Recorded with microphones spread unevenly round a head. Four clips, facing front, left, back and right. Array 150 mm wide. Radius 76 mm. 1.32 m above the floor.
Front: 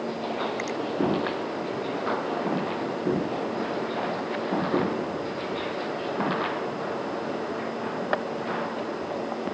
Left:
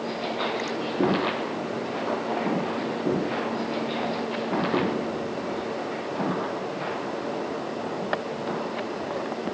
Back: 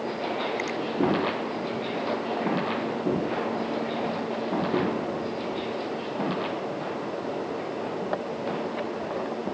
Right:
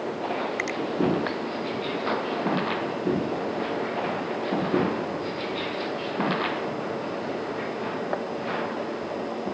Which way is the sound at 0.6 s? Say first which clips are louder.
Even, even; 55° right.